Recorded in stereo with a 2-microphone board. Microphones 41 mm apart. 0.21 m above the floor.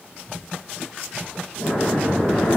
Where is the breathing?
70° left (ahead or behind), 2.5 m.